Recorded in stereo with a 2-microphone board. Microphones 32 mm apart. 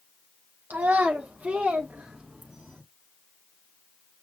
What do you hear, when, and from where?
0.7 s a child speaking: 75° right (ahead or behind), 1.5 m; by 2.8 s 50° right (ahead or behind), 1.6 m